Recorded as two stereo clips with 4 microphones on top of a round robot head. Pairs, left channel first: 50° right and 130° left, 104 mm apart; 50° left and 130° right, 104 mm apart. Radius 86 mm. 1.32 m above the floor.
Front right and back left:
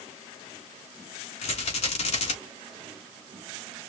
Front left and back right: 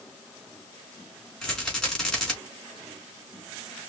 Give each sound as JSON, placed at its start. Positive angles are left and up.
{"t": 1.4, "sound": "a rattle", "azimuth_deg": -35, "distance_m": 3.5}